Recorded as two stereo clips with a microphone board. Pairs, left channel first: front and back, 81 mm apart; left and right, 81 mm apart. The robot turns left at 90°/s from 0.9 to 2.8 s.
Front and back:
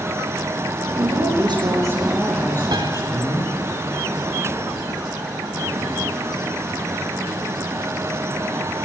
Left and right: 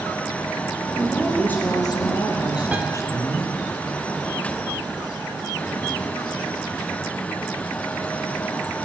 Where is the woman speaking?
155° right, 6.5 m; by 3.7 s 40° left, 6.5 m.